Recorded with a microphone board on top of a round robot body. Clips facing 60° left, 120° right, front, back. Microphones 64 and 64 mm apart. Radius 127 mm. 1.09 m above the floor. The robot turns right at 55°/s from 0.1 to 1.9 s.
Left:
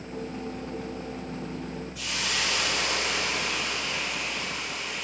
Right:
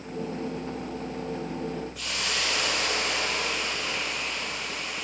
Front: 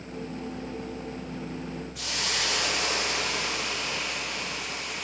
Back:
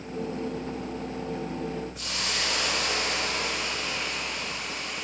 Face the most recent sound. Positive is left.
turn(degrees=-25)